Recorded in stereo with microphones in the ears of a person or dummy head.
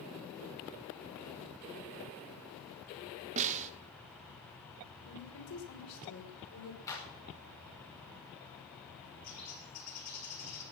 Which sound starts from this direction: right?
A snare drum, at 3.4 s.